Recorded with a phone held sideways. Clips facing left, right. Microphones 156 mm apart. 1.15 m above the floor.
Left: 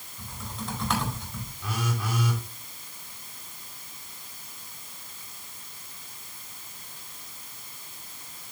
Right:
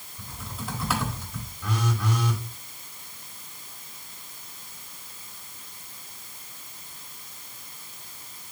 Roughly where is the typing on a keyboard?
Centre.